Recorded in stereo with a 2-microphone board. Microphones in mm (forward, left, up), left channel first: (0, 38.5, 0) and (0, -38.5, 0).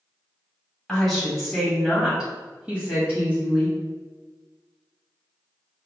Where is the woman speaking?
5° left (ahead or behind), 1.4 m; by 3.8 s 20° right (ahead or behind), 1.5 m.